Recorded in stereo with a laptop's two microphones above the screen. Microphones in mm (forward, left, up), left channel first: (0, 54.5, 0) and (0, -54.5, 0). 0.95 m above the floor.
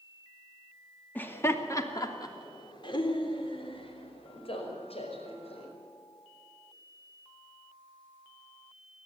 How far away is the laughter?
About 2.5 m.